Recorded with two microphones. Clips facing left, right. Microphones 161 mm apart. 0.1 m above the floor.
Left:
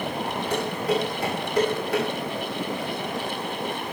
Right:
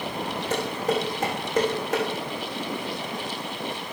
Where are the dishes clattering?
45° right (ahead or behind), 3.5 m.